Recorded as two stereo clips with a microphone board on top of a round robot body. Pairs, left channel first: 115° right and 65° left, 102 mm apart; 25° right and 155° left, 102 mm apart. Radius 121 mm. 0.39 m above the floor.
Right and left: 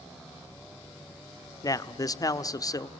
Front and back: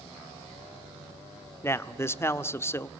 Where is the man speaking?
75° right, 1.4 m.